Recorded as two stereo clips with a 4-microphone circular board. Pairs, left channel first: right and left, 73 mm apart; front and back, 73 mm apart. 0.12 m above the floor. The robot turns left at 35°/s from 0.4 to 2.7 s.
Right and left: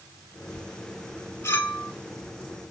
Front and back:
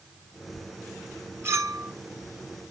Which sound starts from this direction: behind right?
A clink, at 1.4 s.